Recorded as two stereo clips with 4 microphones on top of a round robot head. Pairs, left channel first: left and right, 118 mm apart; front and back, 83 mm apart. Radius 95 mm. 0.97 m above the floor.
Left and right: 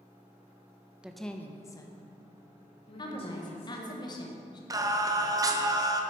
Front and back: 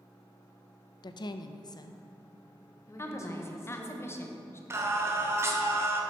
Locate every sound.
1.0 s a woman speaking: 10° right, 0.5 m; by 4.0 s 55° left, 2 m
3.0 s a woman speaking: 50° left, 1.1 m
4.7 s singing: 135° right, 0.8 m